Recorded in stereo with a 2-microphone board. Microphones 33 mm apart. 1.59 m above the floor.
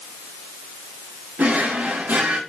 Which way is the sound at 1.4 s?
55° right (ahead or behind).